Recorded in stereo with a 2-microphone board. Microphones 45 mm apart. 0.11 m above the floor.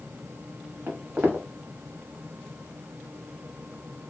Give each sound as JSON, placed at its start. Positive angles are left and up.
{"t": 0.9, "sound": "footsteps", "side_deg": -55, "distance_m": 1.2}